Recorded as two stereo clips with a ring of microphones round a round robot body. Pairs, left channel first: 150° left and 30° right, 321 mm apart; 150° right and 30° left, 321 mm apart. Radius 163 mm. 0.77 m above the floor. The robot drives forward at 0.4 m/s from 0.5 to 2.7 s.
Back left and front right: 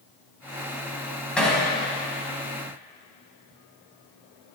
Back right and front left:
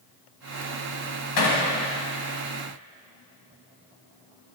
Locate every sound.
1.4 s hammering: 125° right, 4 m